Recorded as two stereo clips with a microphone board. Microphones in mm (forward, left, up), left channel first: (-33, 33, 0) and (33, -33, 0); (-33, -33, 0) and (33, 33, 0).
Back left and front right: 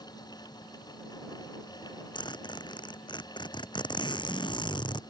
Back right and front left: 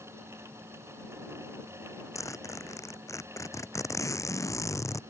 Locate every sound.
2.1 s a zipper: 170° left